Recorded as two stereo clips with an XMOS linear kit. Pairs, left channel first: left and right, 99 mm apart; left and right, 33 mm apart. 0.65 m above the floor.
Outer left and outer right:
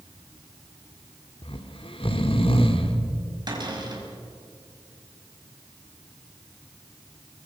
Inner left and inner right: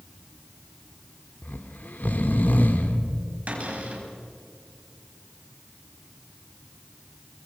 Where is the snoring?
65° left (ahead or behind), 1.7 m.